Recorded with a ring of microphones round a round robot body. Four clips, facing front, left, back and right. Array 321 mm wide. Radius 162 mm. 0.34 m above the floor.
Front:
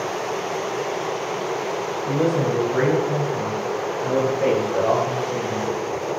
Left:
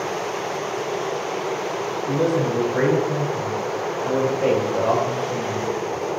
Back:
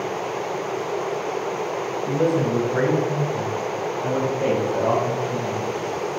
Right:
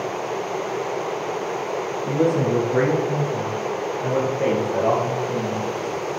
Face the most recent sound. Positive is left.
turn(degrees=-95)